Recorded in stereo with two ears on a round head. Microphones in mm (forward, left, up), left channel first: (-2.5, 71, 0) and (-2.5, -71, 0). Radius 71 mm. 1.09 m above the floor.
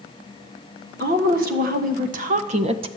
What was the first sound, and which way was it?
A woman speaking, 65° right (ahead or behind).